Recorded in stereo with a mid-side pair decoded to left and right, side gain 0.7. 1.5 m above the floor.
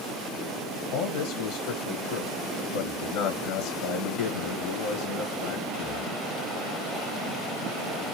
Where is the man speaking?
70° left, 1.2 m.